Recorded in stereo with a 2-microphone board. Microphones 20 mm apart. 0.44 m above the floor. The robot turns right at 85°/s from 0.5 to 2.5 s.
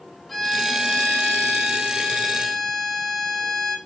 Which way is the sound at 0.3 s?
10° left.